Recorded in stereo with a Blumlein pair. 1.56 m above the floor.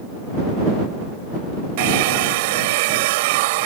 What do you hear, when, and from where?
1.8 s a hair dryer: 50° right